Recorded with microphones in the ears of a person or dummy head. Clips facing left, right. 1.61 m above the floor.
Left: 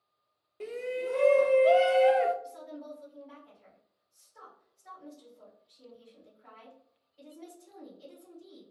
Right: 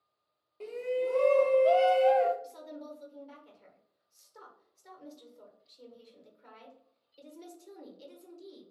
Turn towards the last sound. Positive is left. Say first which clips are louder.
# left 1 dB
turn(degrees=-45)  # may be behind; listen again after turning